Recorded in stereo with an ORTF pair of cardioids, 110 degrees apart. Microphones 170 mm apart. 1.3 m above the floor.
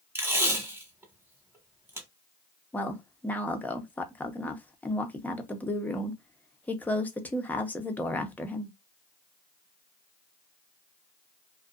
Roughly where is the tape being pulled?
Ahead.